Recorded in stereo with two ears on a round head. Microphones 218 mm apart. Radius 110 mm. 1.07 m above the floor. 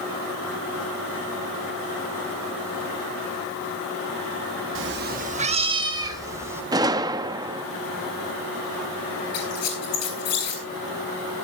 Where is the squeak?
70° left (ahead or behind), 7 m.